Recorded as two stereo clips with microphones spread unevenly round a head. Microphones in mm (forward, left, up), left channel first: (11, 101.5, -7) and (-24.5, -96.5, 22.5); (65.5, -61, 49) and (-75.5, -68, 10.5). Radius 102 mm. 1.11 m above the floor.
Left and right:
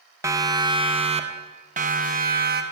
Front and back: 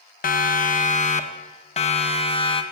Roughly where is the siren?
Ahead.